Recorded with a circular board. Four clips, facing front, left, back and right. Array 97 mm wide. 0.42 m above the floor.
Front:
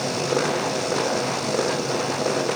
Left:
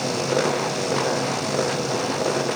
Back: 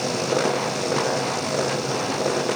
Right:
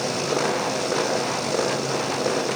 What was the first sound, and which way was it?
Only background noise.